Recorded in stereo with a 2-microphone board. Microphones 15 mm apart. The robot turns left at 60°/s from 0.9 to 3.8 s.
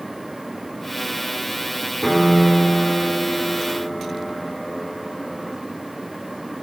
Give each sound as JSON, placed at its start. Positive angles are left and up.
{"t": 2.0, "sound": "a piano", "azimuth_deg": 150, "distance_m": 0.9}